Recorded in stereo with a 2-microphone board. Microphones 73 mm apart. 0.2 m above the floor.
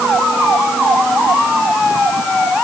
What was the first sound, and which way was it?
Only background noise.